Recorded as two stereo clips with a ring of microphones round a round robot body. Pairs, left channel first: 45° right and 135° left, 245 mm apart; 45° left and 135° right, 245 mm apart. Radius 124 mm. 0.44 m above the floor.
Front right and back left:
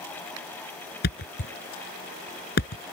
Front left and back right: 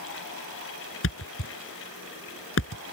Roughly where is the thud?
Ahead.